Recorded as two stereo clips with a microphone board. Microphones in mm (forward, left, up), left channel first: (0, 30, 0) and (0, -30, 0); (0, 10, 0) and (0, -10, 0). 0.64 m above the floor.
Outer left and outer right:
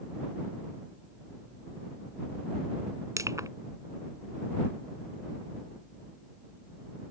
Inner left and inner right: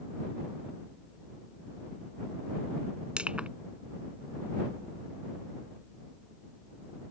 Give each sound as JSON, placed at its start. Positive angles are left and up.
{"t": 3.2, "sound": "crushing", "side_deg": -70}